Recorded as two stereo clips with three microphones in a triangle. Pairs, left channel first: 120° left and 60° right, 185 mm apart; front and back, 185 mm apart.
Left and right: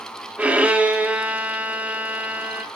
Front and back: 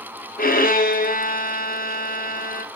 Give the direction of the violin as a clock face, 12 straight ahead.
11 o'clock.